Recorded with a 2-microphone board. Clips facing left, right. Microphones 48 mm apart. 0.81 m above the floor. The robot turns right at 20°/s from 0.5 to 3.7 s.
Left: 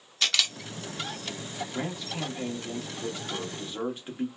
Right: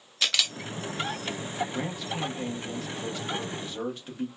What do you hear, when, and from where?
0.2 s a camera shutter: 5° right (ahead or behind), 0.7 m; by 0.5 s centre (ahead or behind), 0.7 m
1.7 s a man speaking: 5° right (ahead or behind), 0.9 m; by 4.3 s 15° left (ahead or behind), 0.9 m